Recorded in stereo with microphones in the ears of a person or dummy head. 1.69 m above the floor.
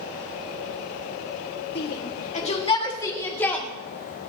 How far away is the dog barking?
No dog barking in this recording.